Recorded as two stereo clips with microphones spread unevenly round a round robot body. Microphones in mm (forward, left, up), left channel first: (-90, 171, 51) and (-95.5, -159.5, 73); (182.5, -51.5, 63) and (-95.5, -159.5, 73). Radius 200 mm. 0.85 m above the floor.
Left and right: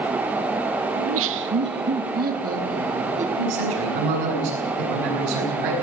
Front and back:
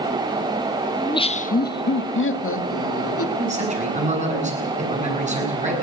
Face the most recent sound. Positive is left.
turn(degrees=-90)